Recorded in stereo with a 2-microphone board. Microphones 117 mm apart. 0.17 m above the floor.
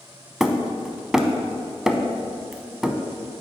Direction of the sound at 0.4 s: 5° right (ahead or behind).